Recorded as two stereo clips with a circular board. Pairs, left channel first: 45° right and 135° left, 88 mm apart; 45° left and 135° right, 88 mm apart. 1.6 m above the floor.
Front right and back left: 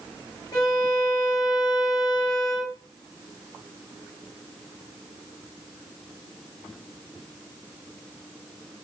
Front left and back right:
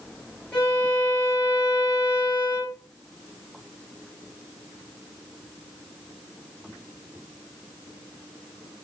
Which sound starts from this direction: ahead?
A violin, at 0.5 s.